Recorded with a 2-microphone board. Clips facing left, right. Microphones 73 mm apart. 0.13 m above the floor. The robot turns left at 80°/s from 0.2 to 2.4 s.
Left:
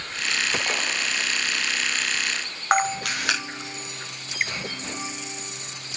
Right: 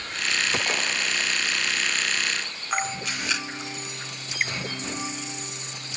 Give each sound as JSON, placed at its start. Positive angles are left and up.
{"t": 2.7, "sound": "a camera shutter", "side_deg": 70, "distance_m": 3.5}